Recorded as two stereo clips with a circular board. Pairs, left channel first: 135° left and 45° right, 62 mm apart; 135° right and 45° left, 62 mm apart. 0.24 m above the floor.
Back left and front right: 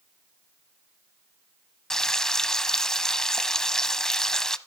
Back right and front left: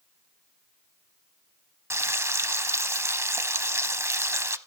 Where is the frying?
55° left, 0.6 m.